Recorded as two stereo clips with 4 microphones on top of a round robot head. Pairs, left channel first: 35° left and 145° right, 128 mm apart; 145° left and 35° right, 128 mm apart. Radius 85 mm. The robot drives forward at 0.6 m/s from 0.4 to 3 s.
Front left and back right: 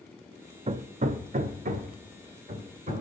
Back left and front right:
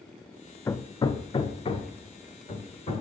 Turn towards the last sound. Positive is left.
turn(degrees=-175)